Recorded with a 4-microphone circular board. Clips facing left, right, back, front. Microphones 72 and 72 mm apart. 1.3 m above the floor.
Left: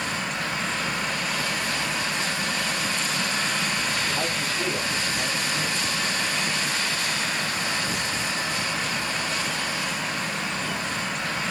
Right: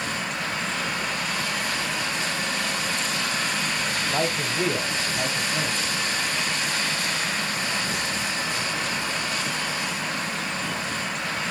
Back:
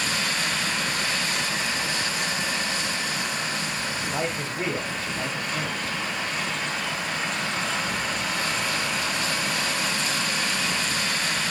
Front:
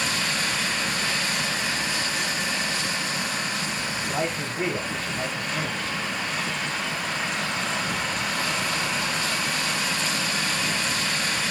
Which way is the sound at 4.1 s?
95° right.